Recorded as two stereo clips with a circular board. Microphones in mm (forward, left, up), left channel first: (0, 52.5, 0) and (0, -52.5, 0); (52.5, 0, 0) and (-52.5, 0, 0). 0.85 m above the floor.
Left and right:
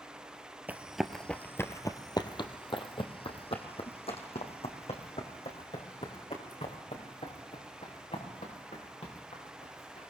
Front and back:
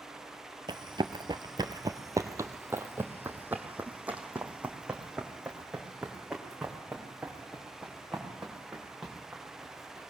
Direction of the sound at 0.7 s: 160° right.